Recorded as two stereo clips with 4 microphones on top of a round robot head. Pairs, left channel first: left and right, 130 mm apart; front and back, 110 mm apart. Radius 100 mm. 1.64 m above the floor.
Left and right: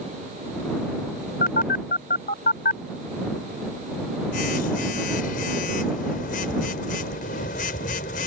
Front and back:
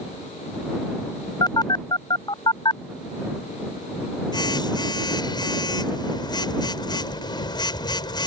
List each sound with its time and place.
1.4 s a phone buzzing: 50° left